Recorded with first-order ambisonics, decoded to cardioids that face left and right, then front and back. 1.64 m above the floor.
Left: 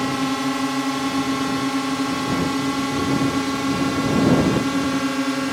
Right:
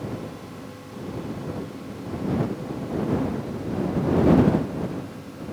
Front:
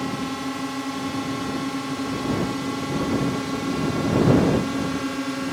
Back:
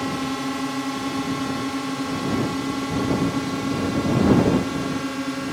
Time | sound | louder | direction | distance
0.0 | a drone | left 13 dB, back 2 dB | 100° left | ?